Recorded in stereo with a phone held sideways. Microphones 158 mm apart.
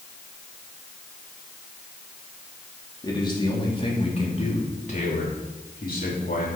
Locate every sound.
3.0 s a man speaking: 25° left (ahead or behind), 3 m; by 6.5 s 65° left (ahead or behind), 3 m